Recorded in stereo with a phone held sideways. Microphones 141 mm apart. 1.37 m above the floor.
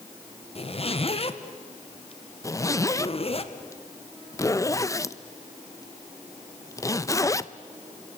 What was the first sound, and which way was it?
A zipper, 45° left (ahead or behind).